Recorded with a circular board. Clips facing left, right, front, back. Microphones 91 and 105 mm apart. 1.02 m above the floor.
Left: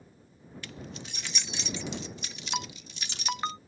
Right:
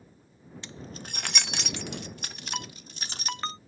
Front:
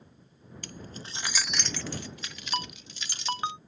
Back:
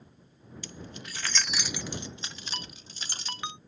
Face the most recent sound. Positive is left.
turn(degrees=15)